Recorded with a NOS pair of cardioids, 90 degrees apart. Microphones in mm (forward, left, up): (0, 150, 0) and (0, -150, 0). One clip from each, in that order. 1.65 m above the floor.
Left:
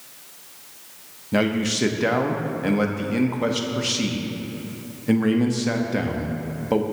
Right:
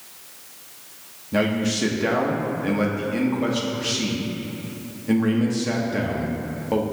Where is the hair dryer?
No hair dryer in this recording.